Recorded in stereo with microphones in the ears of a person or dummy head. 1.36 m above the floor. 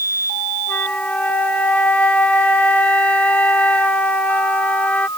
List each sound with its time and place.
0.7 s a flute: 10° left (ahead or behind)